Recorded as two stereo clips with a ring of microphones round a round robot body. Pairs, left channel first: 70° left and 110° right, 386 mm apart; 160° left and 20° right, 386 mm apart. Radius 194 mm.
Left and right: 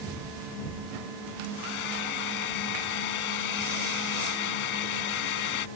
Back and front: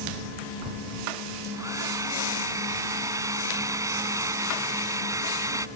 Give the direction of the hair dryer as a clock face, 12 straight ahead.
10 o'clock.